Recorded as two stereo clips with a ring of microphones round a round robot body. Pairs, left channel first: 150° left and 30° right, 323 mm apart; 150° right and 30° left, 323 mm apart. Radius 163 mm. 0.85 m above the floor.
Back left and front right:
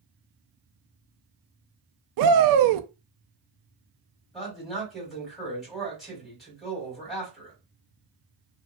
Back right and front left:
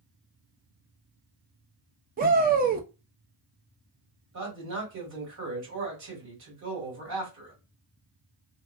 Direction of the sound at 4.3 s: 60° left.